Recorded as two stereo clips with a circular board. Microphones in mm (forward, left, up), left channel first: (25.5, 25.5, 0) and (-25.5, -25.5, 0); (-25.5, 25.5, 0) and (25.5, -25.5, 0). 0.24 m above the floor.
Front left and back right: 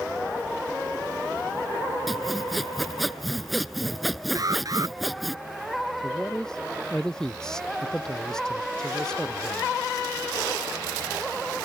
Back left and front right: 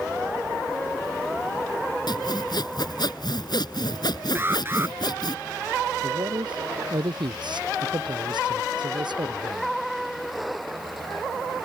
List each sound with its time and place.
2.1 s sawing: 135° left
4.3 s an alarm: 100° right
6.0 s a man speaking: 40° right